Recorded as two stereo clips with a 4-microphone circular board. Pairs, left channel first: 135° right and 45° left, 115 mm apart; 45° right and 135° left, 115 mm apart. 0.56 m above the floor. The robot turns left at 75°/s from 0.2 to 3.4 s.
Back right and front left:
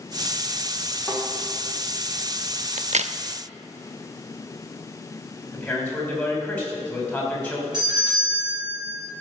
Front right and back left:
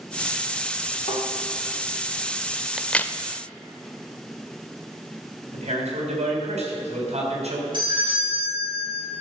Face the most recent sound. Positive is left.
turn(degrees=95)